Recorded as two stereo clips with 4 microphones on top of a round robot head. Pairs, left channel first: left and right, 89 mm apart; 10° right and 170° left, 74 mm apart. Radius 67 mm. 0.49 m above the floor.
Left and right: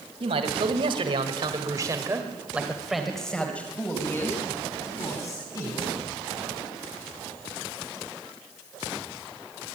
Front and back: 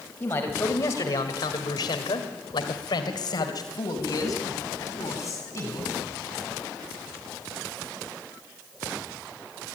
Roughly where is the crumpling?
No crumpling in this recording.